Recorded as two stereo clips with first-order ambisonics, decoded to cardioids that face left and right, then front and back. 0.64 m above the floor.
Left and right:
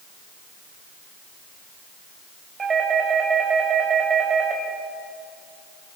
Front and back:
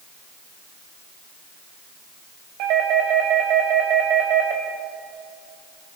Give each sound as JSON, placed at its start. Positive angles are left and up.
{"t": 2.6, "sound": "a doorbell", "azimuth_deg": -160, "distance_m": 4.0}